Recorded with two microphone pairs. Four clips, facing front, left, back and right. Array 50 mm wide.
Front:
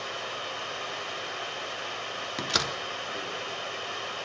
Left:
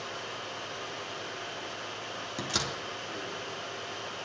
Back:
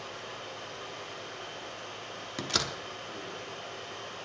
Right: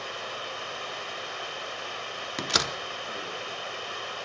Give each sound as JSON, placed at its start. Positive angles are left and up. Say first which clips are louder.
{"t": 0.0, "sound": "running water", "louder": "right 3 dB, front 6 dB", "azimuth_deg": -40, "distance_m": 1.5}
{"t": 2.4, "sound": "a door slam", "louder": "right 6 dB, front 3 dB", "azimuth_deg": -80, "distance_m": 0.8}